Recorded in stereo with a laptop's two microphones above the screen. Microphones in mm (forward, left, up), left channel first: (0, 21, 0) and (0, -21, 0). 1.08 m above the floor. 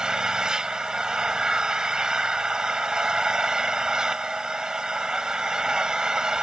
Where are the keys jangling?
No keys jangling in this recording.